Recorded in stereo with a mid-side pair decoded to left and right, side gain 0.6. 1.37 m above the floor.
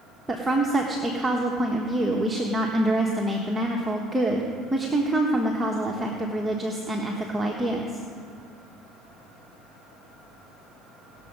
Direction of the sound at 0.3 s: 10° right.